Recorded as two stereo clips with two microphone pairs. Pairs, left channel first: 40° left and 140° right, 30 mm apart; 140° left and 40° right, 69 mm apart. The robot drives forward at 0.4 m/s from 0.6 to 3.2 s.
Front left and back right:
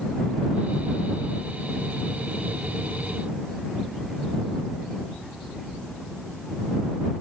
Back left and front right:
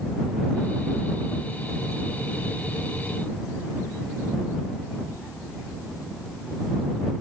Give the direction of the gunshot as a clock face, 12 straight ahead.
I don't hear a gunshot.